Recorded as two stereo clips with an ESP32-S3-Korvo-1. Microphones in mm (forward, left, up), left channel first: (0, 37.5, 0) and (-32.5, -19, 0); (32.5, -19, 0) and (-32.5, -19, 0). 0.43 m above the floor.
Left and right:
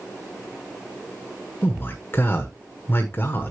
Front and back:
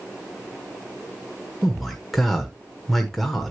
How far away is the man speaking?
About 1.2 m.